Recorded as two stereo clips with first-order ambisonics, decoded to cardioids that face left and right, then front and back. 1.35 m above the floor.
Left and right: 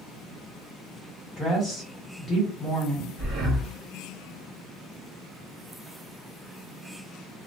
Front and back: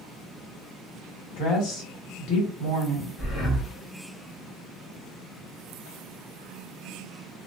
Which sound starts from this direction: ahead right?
Breathing, at 3.2 s.